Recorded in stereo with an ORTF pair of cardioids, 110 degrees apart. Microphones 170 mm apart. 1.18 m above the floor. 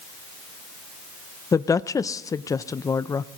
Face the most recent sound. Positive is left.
turn(degrees=20)